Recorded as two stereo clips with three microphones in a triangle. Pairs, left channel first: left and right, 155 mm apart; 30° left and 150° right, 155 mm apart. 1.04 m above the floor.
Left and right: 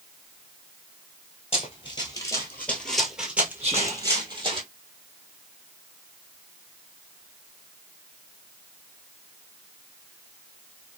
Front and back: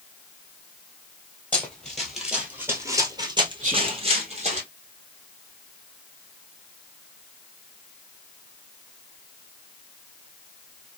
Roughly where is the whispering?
Behind right.